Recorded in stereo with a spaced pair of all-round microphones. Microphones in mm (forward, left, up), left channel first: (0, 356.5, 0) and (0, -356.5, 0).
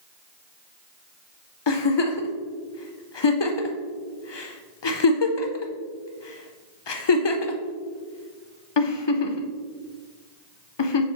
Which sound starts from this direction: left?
A giggle, at 1.7 s.